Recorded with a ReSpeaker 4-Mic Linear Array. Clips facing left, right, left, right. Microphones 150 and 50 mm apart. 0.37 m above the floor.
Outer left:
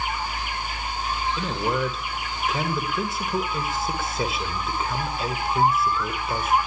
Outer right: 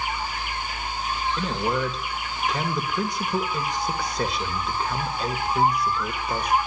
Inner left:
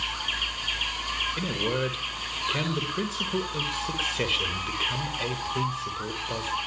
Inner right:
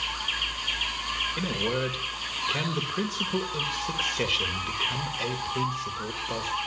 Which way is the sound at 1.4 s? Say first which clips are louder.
Even, even; 5° left (ahead or behind).